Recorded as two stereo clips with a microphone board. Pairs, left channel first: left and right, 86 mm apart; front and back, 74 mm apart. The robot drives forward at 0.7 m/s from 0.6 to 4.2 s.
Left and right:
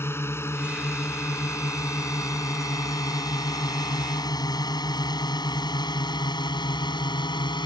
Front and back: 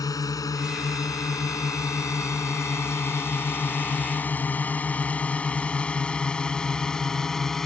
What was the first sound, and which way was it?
A drone, 30° left.